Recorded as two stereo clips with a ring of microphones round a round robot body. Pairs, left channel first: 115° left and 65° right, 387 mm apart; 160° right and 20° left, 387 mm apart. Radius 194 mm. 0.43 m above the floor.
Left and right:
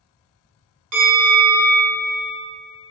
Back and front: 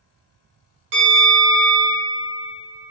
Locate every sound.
0.9 s a bell: 35° right, 1.4 m